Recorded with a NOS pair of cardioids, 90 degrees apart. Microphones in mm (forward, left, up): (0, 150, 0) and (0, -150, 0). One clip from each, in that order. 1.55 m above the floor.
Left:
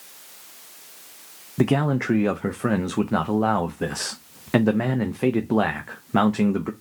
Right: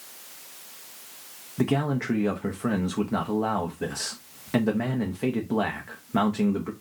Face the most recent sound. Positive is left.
turn(degrees=25)